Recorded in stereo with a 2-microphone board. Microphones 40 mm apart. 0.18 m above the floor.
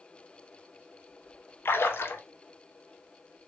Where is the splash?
70° left (ahead or behind), 0.6 m.